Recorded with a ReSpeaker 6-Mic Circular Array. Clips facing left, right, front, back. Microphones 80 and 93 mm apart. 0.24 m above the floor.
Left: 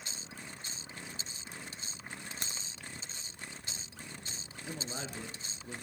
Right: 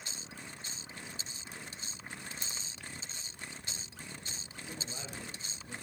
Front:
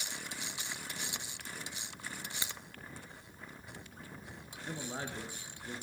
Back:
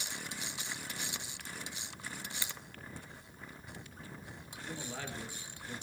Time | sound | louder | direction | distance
2.4 | a crack | left 2 dB, front 1 dB | 70° left | 1.2 m
4.7 | a man speaking | left 4 dB, front 2 dB | 55° left | 4 m